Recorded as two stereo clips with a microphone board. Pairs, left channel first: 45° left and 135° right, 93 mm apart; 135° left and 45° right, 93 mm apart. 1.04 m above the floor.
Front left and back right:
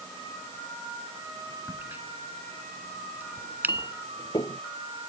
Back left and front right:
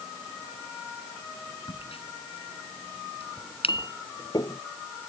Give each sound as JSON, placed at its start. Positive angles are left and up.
{"t": 1.7, "sound": "a crack", "azimuth_deg": 155}
{"t": 3.4, "sound": "a clink", "azimuth_deg": 90}